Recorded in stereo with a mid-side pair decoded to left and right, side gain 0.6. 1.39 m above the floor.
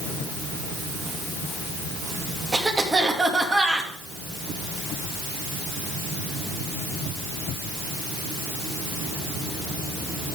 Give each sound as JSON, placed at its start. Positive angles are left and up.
{"t": 2.5, "sound": "a cough", "azimuth_deg": -20, "distance_m": 2.5}